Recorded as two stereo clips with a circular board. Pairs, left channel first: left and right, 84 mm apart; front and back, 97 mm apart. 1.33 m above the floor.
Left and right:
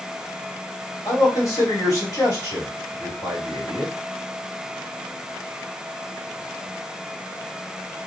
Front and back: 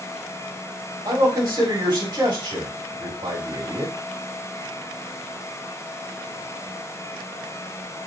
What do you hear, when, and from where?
1.1 s a man speaking: 140° left, 2.5 m